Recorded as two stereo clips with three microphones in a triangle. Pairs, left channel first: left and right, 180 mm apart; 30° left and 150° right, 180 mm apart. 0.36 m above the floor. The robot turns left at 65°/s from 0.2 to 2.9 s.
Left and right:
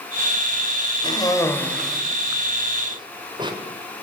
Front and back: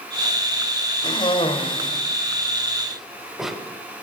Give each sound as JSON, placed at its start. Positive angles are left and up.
{"t": 1.0, "sound": "a cough", "azimuth_deg": 55, "distance_m": 1.3}